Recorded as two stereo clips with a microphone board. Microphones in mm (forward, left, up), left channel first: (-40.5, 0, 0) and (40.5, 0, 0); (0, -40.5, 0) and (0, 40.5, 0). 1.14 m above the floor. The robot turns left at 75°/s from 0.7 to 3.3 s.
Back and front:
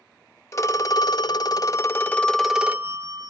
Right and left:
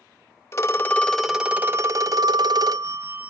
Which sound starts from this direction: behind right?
A phone ringing, at 0.5 s.